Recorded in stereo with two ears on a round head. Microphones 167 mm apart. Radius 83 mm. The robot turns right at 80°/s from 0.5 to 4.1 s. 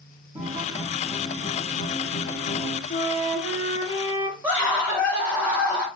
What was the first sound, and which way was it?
A guitar, 30° right.